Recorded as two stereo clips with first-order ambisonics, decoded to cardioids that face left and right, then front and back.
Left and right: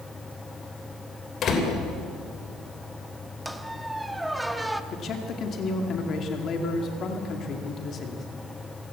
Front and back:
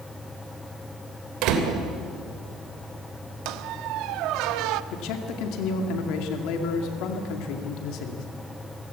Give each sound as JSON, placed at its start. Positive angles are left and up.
{"t": 1.4, "sound": "a door slam", "azimuth_deg": 150, "distance_m": 3.0}
{"t": 3.5, "sound": "a squeak", "azimuth_deg": -175, "distance_m": 0.8}
{"t": 4.9, "sound": "a man speaking", "azimuth_deg": 30, "distance_m": 2.0}